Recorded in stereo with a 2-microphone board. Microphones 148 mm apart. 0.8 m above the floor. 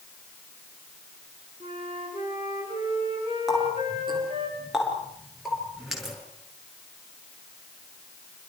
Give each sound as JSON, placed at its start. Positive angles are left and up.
{"t": 1.6, "sound": "a flute", "side_deg": -45, "distance_m": 8.5}
{"t": 3.5, "sound": "a running tap", "side_deg": -5, "distance_m": 9.0}